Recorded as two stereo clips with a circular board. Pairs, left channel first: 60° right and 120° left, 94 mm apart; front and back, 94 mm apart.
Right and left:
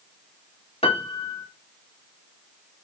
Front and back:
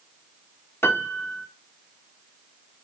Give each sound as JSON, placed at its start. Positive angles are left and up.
{"t": 0.8, "sound": "a piano", "azimuth_deg": -65, "distance_m": 1.7}